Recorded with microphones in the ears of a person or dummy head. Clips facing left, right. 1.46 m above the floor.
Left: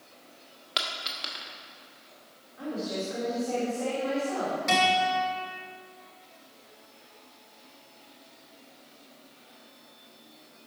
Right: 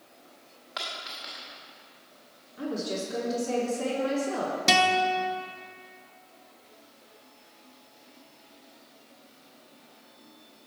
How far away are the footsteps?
No footsteps in this recording.